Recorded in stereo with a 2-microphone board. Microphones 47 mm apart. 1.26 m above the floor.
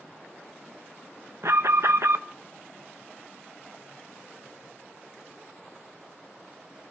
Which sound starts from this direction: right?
An alarm, at 1.4 s.